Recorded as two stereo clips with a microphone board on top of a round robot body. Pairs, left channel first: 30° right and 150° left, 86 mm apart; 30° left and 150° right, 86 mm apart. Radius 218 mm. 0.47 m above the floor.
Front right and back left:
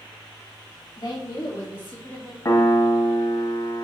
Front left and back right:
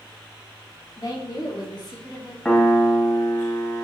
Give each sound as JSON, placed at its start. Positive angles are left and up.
{"t": 1.0, "sound": "a woman speaking", "azimuth_deg": -10, "distance_m": 2.0}
{"t": 2.5, "sound": "a piano", "azimuth_deg": -40, "distance_m": 1.2}